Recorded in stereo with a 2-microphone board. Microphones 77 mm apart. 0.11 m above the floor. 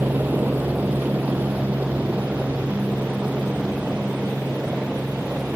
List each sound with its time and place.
0.0 s a helicopter: 20° right (ahead or behind); by 5.6 s 10° right (ahead or behind)